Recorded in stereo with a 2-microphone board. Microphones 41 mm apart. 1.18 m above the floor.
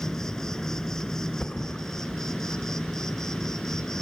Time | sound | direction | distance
0.0 | an insect | 10° left (ahead or behind) | 1.2 m
1.4 | a thud | 25° left (ahead or behind) | 2 m